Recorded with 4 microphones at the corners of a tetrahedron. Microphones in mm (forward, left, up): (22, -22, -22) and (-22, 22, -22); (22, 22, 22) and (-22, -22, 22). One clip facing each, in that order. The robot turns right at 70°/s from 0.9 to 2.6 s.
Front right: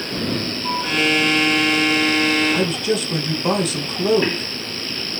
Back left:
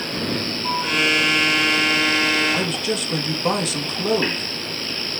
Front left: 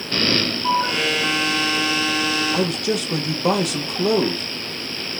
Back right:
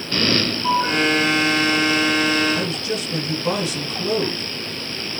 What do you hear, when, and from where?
2.5 s a man speaking: 40° left, 3.5 m; by 4.5 s 45° left, 3.5 m